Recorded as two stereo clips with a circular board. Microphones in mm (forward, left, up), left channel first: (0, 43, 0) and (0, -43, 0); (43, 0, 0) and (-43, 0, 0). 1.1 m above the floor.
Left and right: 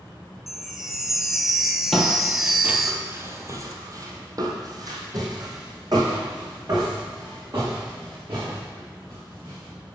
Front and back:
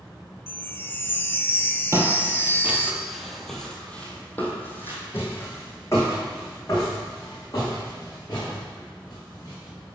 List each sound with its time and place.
0.5 s a chime: 10° right, 0.6 m
1.9 s footsteps: 175° left, 1.2 m; by 9.7 s 50° right, 5 m